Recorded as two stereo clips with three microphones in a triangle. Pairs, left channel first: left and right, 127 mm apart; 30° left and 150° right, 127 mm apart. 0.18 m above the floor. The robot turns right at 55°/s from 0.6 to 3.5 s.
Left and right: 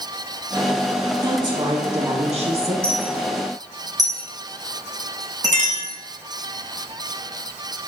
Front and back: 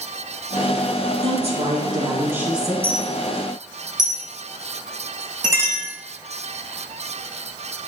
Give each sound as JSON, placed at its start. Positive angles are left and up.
{"t": 1.2, "sound": "a woman speaking", "azimuth_deg": -145, "distance_m": 2.5}
{"t": 2.8, "sound": "a dropped coin", "azimuth_deg": 170, "distance_m": 2.5}
{"t": 5.5, "sound": "a clink", "azimuth_deg": -80, "distance_m": 2.0}